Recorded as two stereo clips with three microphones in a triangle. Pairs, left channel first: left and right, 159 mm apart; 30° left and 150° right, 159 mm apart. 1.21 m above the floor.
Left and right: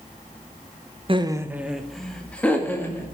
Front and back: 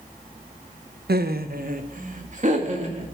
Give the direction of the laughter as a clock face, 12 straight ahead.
5 o'clock.